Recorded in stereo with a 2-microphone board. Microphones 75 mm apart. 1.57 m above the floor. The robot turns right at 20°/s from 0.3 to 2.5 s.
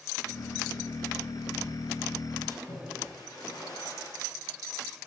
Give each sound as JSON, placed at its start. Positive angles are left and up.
{"t": 2.5, "sound": "a splash", "side_deg": 75, "distance_m": 9.5}